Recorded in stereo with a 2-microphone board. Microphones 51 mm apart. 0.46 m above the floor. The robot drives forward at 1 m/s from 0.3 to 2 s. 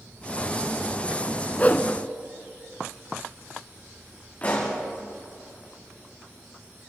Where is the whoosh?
30° left (ahead or behind), 1.1 m; by 1.9 s 40° left (ahead or behind), 0.8 m.